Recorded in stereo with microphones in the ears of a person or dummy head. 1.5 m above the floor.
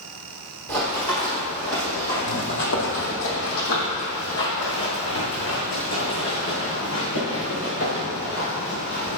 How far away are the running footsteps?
About 2 m.